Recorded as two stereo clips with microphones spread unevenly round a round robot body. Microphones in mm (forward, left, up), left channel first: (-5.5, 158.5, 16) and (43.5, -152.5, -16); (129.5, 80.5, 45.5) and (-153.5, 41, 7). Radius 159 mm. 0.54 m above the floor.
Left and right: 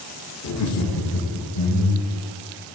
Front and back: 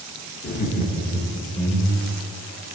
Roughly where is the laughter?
Ahead left.